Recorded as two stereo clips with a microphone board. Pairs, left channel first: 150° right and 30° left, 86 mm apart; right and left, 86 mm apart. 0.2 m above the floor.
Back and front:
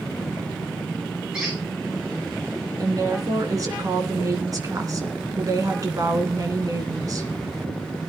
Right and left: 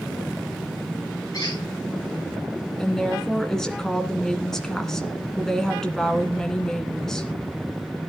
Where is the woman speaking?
5° right, 2 m.